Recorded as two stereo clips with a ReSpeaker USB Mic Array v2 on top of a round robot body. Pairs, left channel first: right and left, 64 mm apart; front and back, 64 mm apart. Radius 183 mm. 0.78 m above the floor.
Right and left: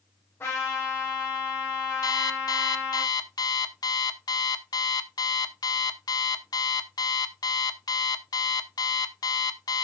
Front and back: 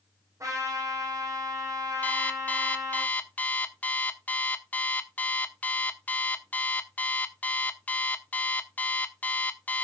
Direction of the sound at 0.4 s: 145° right.